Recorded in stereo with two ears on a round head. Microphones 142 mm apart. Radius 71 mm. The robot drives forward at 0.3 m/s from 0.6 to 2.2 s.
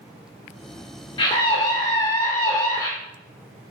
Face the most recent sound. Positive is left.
turn(degrees=25)  # may be behind; listen again after turning